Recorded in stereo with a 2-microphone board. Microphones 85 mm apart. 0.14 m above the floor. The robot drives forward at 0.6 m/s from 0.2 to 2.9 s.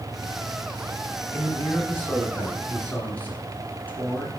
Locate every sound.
1.3 s a man speaking: 25° left (ahead or behind), 1.6 m; by 4.3 s 20° left (ahead or behind), 2.0 m